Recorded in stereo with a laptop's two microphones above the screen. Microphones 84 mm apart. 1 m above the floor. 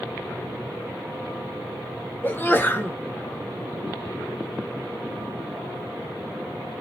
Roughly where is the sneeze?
Left.